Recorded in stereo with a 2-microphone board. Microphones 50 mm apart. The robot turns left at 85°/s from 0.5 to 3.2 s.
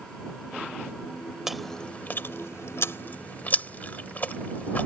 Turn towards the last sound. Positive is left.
turn(degrees=40)  # may be behind; listen again after turning